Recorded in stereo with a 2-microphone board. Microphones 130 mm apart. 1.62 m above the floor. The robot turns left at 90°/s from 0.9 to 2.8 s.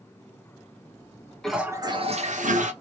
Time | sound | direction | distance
1.4 | a toilet flushing | 5° left | 0.9 m